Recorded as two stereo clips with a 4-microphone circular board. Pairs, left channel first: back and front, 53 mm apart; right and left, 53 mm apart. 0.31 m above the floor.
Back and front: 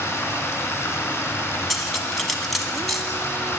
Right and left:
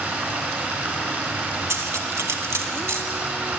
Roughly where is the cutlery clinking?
Left.